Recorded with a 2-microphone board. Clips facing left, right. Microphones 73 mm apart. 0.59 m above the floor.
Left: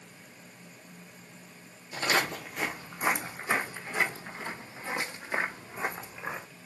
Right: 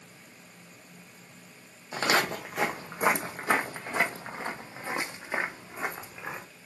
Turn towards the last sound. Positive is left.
turn(degrees=5)  # may be behind; listen again after turning